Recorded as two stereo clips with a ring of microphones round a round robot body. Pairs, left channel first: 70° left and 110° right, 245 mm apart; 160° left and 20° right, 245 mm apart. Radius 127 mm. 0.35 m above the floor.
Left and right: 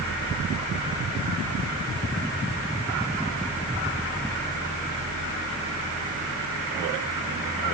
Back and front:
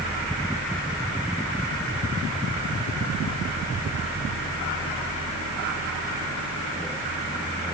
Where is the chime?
No chime in this recording.